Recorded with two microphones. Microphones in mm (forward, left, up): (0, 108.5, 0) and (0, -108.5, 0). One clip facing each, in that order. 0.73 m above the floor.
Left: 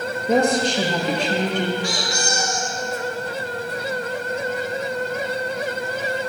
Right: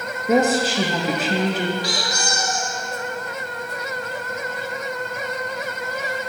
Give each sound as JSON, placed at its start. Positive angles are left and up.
{"t": 0.3, "sound": "a woman speaking", "side_deg": -5, "distance_m": 0.6}
{"t": 1.8, "sound": "a squeak", "side_deg": -35, "distance_m": 1.0}